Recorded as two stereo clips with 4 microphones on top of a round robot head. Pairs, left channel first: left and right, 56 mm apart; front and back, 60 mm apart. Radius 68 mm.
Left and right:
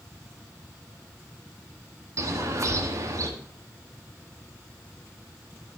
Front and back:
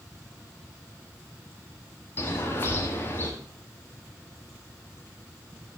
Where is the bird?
60° right, 1.5 m.